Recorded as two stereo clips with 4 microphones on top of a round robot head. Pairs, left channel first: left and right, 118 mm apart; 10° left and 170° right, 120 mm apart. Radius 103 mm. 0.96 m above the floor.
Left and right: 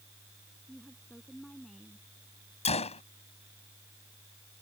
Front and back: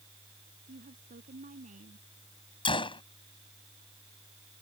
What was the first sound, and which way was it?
A woman speaking, straight behind.